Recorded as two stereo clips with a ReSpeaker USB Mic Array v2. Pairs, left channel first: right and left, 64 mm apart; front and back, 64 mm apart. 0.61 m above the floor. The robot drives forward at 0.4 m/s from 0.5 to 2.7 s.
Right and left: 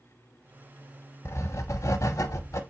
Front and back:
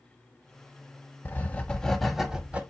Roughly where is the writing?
Ahead right.